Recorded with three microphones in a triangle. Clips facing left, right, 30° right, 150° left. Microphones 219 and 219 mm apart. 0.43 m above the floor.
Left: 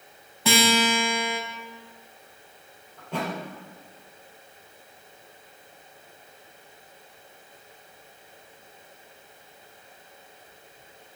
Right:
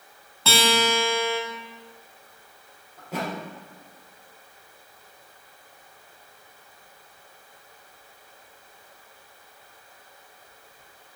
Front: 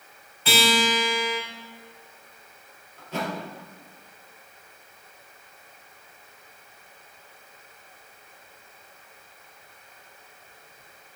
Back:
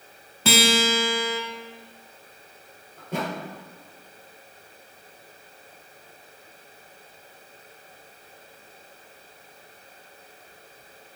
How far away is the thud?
About 2.5 m.